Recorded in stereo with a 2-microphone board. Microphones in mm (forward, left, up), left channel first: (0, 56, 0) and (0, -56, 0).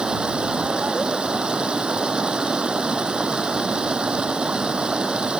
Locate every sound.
0.0 s running water: 10° right (ahead or behind)